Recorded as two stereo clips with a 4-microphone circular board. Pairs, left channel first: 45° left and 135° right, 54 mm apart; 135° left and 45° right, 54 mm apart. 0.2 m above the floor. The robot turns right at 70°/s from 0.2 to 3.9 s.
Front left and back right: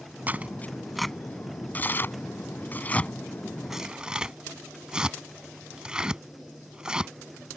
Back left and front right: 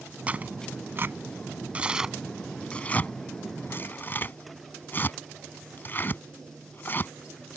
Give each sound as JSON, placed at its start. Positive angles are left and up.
{"t": 0.3, "sound": "tearing paper", "azimuth_deg": -95}